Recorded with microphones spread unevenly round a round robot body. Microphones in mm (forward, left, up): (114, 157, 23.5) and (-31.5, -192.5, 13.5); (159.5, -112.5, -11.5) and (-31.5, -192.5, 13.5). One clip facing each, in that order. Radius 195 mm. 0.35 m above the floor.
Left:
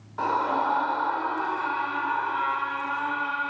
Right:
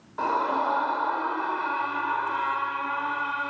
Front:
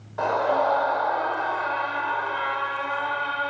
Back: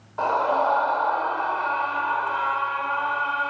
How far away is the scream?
About 1.3 m.